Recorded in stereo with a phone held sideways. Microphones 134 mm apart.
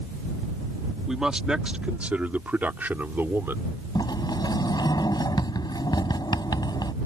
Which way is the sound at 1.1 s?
Centre (ahead or behind).